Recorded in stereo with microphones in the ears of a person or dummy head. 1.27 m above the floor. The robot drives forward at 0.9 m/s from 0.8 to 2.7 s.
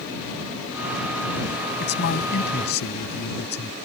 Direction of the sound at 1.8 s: 55° left (ahead or behind).